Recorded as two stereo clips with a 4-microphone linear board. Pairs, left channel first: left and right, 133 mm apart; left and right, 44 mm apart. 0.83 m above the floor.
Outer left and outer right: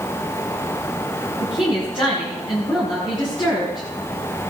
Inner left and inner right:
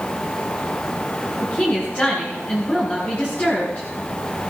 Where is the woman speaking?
40° left (ahead or behind), 8.5 m.